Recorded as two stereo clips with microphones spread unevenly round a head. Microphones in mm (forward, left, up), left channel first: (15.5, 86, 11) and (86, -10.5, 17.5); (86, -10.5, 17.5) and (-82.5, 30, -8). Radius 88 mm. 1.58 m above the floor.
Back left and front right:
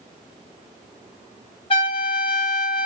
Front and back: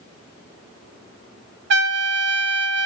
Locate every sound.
1.7 s a trumpet: straight behind, 0.6 m